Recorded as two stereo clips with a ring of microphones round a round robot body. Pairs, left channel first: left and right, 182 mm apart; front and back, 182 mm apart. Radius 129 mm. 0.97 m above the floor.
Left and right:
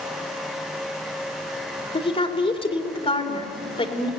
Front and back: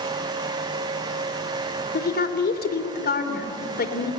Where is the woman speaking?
30° left, 3.5 m.